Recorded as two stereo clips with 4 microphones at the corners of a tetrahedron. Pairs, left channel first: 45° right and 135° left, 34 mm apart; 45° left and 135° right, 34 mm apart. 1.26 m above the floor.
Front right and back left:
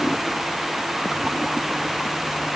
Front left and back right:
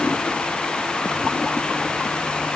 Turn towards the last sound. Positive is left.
No sound to turn to.